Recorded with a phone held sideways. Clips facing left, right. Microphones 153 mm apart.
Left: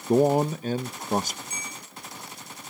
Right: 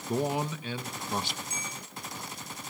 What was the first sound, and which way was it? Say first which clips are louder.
A man speaking: left 10 dB; 40° left (ahead or behind).